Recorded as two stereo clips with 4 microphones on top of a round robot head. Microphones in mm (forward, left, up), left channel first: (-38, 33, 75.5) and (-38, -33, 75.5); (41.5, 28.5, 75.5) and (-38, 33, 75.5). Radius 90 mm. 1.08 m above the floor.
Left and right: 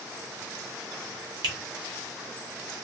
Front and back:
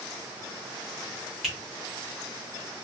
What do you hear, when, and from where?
1.4 s a finger snap: 95° right, 1.3 m